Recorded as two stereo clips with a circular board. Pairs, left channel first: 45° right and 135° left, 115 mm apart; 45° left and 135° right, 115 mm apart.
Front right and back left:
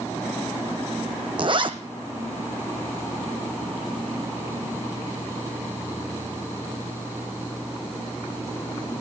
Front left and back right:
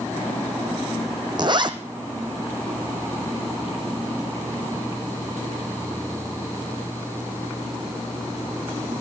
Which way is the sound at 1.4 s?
Straight behind.